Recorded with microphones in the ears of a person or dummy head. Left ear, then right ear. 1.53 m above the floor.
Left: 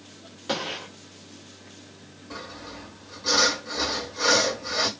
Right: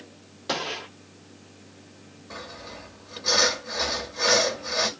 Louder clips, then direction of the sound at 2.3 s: Even; centre (ahead or behind).